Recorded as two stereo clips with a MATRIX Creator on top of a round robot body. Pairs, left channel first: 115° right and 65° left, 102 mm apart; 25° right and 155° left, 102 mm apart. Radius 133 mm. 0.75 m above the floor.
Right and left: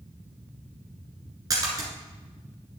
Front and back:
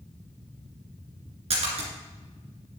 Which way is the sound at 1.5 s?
125° left.